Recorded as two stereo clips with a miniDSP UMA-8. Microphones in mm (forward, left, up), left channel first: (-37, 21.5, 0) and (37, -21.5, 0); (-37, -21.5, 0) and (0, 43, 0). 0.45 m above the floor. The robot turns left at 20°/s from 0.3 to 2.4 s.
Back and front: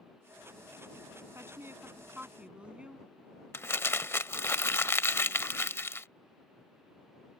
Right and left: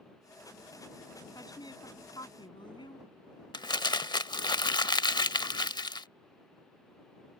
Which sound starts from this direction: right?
A woman speaking, at 1.4 s.